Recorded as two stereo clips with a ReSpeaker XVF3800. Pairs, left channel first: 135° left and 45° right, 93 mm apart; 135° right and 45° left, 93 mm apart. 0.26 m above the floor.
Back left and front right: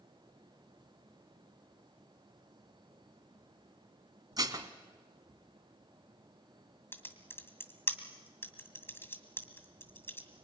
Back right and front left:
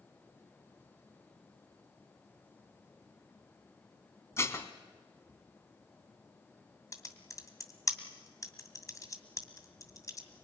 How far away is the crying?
No crying in this recording.